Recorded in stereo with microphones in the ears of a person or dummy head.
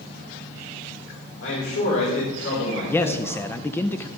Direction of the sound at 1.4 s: 80° left.